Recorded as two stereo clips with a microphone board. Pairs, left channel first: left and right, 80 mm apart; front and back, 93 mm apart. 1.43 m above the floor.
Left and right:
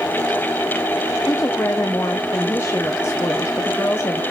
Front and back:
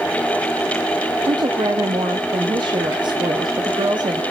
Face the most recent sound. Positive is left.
turn(degrees=140)